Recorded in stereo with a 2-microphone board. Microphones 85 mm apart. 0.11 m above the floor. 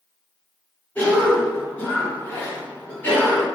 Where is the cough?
25° left (ahead or behind), 1.7 m.